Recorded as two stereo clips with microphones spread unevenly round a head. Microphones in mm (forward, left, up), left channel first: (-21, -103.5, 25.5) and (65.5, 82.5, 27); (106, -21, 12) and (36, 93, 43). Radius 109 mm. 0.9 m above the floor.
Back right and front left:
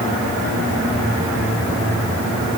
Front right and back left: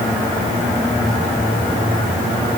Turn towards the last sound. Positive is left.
No sound to turn to.